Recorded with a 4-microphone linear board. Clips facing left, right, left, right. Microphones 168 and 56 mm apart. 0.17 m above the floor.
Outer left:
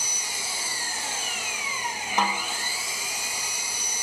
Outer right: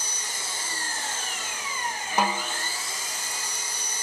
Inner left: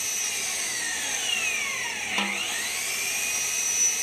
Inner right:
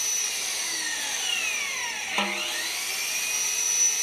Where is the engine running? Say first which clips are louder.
Even, inner left 1 dB; 10° left (ahead or behind), 1.4 m.